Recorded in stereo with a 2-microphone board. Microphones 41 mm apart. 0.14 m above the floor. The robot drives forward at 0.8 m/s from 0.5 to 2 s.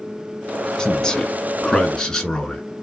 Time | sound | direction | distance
0.8 | a man speaking | 20° left (ahead or behind) | 1.1 m